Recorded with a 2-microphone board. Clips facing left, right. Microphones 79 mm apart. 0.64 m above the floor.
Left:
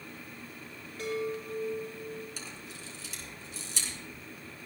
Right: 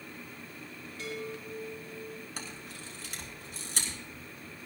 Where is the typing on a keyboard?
No typing on a keyboard in this recording.